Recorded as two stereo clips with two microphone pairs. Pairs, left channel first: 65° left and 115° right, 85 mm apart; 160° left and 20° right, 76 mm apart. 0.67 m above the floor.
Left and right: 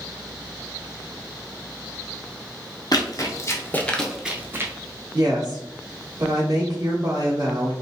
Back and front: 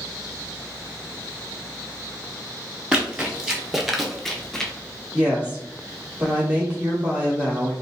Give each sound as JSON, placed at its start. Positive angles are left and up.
{"t": 2.9, "sound": "running footsteps", "azimuth_deg": 55, "distance_m": 1.0}
{"t": 5.1, "sound": "a woman speaking", "azimuth_deg": -95, "distance_m": 1.0}